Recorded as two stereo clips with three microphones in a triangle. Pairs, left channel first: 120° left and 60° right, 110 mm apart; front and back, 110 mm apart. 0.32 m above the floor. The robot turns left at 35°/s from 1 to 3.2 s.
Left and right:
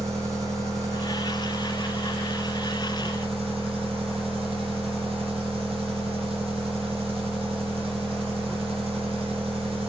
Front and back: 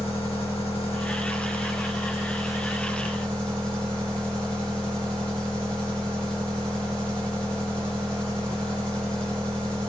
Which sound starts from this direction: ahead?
An engine running, at 0.0 s.